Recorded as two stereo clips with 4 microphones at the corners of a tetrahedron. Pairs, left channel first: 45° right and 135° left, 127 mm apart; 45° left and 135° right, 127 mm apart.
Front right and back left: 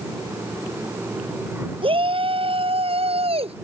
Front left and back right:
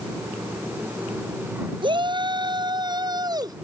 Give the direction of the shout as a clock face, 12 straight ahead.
6 o'clock.